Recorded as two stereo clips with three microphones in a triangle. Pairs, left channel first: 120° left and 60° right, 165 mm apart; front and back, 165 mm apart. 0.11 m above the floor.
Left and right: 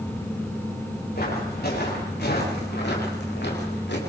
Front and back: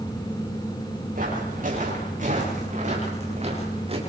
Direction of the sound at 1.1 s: 145° left.